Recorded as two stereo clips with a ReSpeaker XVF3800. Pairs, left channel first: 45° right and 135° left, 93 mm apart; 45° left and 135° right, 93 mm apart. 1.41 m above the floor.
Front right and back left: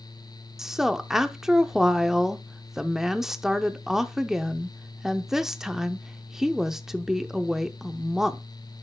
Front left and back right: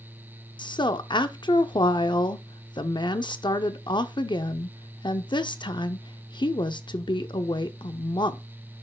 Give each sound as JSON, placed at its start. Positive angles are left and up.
{"t": 0.6, "sound": "a woman speaking", "azimuth_deg": 50, "distance_m": 0.5}